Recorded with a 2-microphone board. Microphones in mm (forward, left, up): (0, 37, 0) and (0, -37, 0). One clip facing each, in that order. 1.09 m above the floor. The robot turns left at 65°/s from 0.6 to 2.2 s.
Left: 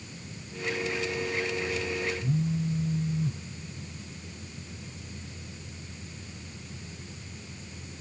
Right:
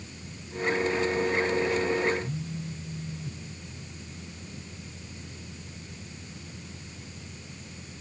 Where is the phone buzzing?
30° left (ahead or behind), 0.7 m.